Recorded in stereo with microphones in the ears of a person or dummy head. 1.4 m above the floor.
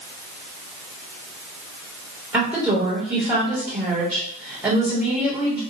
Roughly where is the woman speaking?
Centre.